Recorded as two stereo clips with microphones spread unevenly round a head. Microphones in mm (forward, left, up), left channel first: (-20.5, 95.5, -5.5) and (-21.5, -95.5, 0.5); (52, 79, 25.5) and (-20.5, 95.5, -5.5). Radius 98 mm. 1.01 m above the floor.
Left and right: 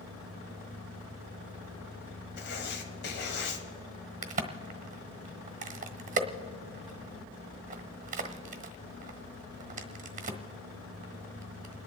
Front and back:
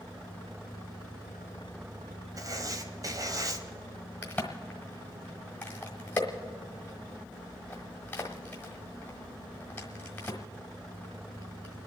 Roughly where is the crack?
Ahead right.